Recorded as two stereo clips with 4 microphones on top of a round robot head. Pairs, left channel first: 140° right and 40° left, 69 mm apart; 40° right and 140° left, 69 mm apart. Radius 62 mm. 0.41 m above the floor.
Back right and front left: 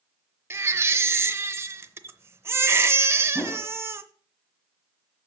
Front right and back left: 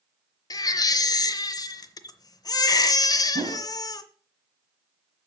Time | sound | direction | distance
0.5 | a baby crying | 10° right | 0.7 m
3.4 | a whoosh | 145° left | 1.1 m